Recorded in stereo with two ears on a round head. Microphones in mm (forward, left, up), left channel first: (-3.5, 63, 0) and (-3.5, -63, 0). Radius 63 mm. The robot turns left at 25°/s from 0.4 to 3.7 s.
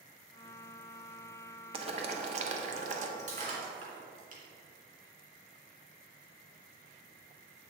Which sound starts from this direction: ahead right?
Boiling, at 1.7 s.